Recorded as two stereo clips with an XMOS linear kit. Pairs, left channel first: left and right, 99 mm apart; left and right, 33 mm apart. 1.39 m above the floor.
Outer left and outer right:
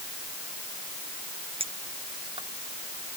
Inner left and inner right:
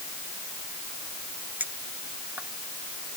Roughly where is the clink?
Right.